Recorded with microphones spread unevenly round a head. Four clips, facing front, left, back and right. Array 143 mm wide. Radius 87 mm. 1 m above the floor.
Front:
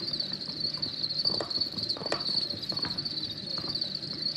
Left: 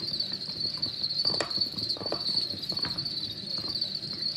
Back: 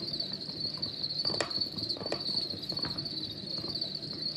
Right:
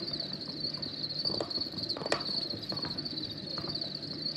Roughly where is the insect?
Right.